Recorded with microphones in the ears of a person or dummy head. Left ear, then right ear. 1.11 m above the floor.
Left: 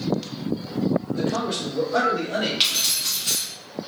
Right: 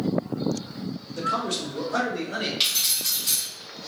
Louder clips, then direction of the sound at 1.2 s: Left 1 dB; 30° right (ahead or behind).